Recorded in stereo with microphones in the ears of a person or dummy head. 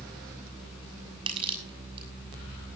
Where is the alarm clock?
I don't hear an alarm clock.